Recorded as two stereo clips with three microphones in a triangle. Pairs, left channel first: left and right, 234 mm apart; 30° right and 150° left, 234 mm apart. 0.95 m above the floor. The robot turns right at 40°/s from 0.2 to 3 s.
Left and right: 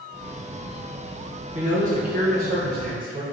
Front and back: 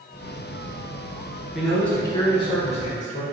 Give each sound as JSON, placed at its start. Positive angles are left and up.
{"t": 1.5, "sound": "a man speaking", "azimuth_deg": -120, "distance_m": 0.9}